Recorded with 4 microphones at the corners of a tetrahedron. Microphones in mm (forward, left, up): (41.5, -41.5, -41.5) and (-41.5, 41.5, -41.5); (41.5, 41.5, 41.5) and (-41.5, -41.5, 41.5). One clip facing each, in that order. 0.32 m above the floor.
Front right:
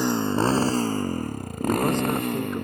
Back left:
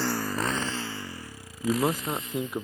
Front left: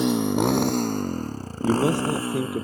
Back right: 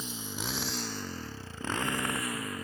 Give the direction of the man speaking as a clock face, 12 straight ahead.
10 o'clock.